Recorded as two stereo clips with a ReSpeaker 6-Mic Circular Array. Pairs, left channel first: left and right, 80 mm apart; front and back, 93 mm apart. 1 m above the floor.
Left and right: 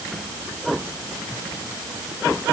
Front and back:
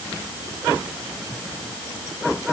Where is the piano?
I don't hear a piano.